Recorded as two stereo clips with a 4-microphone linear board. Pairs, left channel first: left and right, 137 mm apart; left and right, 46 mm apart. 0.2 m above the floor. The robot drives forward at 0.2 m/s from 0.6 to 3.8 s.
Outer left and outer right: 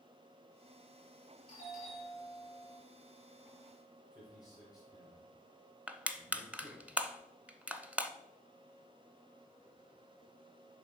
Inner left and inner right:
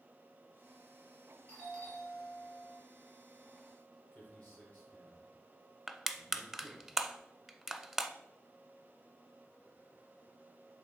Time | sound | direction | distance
1.5 | a doorbell | 35° left (ahead or behind) | 5 m
4.1 | a man speaking | 30° left (ahead or behind) | 3 m
5.9 | crushing | 10° right (ahead or behind) | 0.6 m